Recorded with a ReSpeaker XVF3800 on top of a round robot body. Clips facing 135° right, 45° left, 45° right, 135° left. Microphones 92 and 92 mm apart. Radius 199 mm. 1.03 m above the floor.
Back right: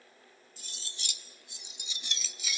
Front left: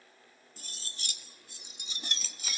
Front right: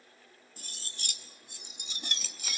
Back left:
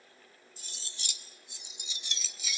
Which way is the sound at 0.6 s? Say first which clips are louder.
Front left 2 dB, front right 3 dB; 5° right.